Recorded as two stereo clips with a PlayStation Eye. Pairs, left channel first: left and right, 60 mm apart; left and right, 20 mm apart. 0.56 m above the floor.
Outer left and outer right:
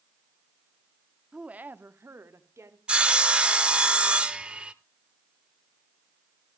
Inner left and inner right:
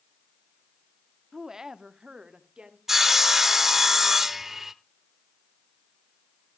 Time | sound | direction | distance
1.3 | a woman speaking | 15° right (ahead or behind) | 0.8 m
2.9 | sawing | 20° right (ahead or behind) | 0.9 m